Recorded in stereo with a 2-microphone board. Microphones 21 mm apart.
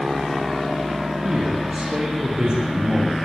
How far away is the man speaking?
About 7.5 m.